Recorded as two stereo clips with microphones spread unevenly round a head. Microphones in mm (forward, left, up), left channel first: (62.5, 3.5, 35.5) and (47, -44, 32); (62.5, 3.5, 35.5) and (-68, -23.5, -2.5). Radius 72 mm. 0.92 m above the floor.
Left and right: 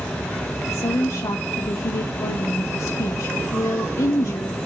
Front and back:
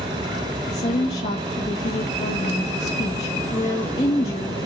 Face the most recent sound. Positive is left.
turn(degrees=65)